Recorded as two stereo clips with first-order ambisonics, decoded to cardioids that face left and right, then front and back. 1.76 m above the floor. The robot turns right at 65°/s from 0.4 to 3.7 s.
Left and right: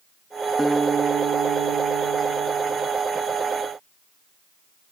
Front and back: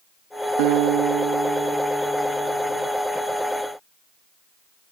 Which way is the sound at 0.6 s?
Straight behind.